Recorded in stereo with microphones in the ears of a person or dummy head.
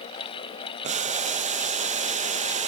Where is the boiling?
40° right (ahead or behind), 1.0 m.